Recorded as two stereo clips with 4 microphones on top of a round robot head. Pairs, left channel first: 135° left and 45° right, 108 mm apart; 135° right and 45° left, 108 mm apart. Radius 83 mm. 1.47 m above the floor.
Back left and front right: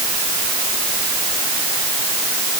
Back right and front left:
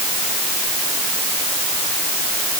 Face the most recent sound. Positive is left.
No sound to turn to.